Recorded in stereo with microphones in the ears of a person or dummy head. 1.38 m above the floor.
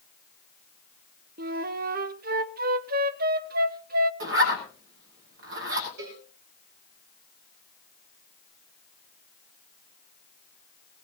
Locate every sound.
1.4 s a flute: 45° right (ahead or behind), 0.6 m
4.2 s a zipper: 70° right (ahead or behind), 6 m
6.0 s a cowbell: 70° right (ahead or behind), 6 m